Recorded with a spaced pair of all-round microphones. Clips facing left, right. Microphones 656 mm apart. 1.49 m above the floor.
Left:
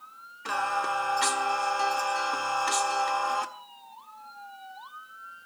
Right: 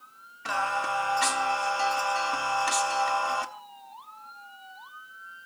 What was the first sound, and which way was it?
Singing, 15° right (ahead or behind).